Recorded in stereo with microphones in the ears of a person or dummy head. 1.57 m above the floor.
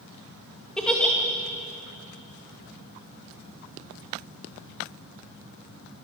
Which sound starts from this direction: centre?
A giggle, at 0.8 s.